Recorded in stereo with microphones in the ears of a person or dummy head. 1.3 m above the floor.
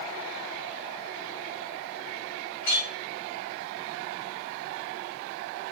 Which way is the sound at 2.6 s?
35° left (ahead or behind).